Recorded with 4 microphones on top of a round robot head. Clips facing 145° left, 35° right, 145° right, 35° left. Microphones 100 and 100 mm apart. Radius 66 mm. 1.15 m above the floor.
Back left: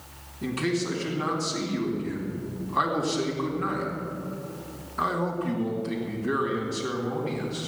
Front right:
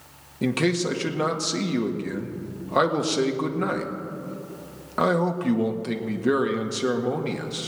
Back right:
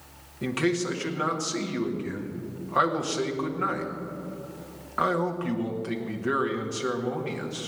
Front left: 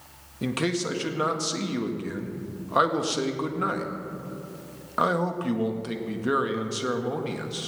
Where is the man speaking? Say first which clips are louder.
Front right 4 dB, back right 1 dB; 35° right, 1.8 m.